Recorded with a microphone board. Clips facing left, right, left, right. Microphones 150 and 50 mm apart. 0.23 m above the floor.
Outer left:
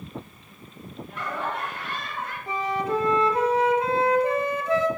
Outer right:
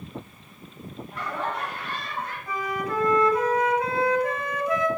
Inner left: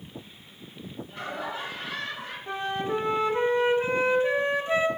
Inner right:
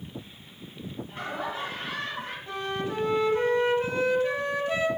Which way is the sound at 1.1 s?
35° right (ahead or behind).